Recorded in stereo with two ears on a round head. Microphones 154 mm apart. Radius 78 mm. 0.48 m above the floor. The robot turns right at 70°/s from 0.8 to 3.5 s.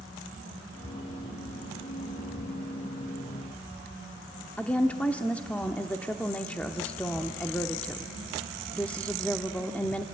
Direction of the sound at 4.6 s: 10° left (ahead or behind).